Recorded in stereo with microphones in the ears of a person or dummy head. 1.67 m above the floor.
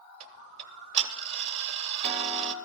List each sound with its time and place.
0.2 s ticking: 35° right (ahead or behind), 1.0 m